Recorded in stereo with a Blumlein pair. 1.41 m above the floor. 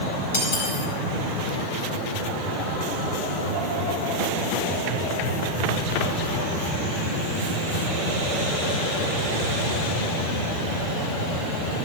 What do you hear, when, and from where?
0.3 s cutlery clinking: 65° left, 6 m